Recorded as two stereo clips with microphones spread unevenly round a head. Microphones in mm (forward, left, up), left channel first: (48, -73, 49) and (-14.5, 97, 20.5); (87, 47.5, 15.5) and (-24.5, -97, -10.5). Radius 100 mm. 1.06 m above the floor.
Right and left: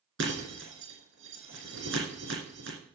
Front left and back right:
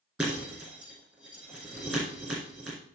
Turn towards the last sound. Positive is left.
turn(degrees=140)